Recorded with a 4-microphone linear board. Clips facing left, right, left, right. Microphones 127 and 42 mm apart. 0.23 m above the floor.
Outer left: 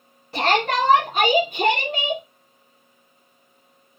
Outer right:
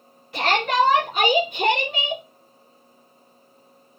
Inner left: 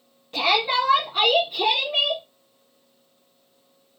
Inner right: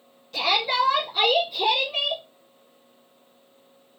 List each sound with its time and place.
0.3 s a shout: 40° left (ahead or behind), 2 m; by 2.2 s 50° left (ahead or behind), 3.5 m